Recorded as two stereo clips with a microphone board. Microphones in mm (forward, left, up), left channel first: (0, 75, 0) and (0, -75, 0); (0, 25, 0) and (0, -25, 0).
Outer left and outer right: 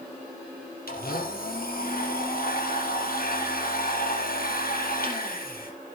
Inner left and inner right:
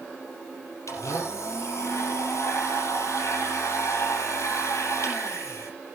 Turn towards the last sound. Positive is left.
turn(degrees=80)